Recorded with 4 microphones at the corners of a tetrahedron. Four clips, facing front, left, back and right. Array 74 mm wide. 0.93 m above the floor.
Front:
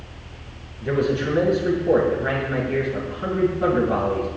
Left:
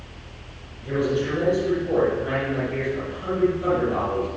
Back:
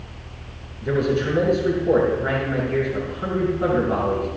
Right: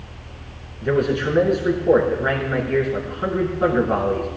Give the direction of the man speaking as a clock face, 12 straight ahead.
3 o'clock.